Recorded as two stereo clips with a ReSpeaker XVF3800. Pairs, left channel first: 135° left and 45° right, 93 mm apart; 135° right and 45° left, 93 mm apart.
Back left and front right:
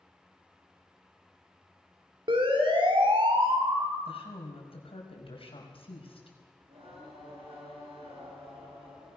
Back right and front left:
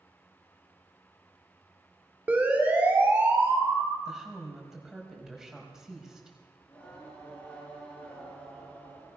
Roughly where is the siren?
Ahead right.